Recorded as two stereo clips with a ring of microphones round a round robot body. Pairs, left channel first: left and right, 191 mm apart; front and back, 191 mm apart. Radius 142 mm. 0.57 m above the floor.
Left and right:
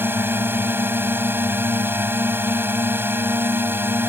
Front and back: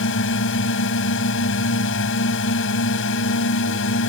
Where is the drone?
10° right.